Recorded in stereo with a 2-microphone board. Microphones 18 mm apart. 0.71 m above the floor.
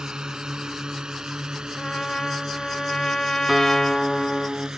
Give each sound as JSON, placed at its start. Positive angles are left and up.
{"t": 0.0, "sound": "a drone", "side_deg": -60}
{"t": 1.8, "sound": "a trumpet", "side_deg": 40}
{"t": 3.5, "sound": "a guitar", "side_deg": -25}